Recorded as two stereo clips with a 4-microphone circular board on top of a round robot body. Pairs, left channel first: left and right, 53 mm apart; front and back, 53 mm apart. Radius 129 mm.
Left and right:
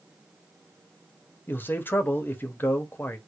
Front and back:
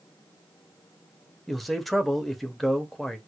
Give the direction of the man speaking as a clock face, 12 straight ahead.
9 o'clock.